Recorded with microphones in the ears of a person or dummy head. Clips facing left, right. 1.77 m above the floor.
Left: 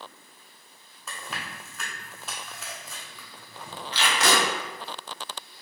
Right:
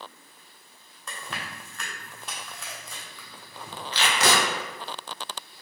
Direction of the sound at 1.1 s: Centre (ahead or behind).